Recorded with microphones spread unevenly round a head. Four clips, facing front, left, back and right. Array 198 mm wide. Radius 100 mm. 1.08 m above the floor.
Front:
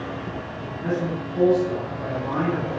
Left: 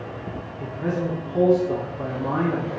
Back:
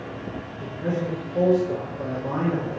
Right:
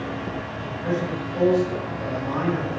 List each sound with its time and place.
0.6 s a man speaking: 90° left, 3.5 m